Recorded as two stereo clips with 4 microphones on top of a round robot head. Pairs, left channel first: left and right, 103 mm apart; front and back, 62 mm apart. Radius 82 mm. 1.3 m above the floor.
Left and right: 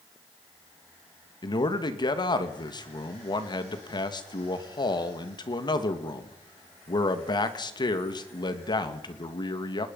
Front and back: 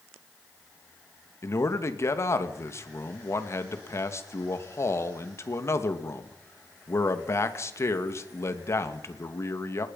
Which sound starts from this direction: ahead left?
A man speaking, at 1.4 s.